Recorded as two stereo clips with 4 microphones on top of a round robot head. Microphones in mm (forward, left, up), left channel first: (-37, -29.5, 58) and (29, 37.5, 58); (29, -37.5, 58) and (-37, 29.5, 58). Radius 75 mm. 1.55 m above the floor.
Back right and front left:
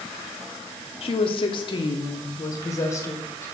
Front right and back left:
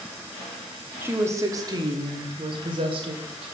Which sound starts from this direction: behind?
A woman speaking, at 1.0 s.